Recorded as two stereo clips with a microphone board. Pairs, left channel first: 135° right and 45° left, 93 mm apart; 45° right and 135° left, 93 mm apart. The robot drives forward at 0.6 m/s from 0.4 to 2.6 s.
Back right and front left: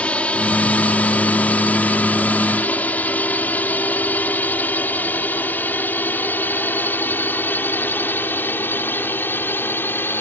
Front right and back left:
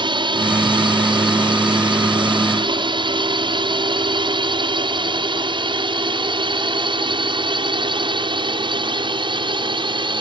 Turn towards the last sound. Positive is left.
turn(degrees=160)